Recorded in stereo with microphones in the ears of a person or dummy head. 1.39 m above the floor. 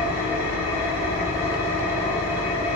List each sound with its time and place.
0.0 s an engine running: 45° right (ahead or behind), 1.5 m